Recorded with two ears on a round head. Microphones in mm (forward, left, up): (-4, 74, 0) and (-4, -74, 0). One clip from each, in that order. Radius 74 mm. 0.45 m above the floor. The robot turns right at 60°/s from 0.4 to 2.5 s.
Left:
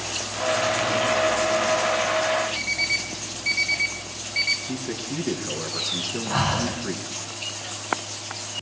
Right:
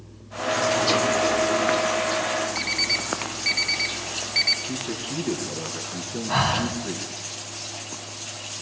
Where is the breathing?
40° right (ahead or behind), 3.5 m.